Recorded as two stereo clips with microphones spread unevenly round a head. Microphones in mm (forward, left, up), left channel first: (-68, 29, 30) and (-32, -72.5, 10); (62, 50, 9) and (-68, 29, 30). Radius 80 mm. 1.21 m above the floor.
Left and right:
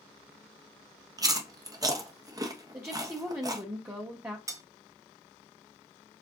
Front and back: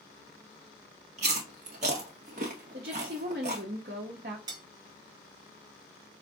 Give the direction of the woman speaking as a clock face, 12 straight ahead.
5 o'clock.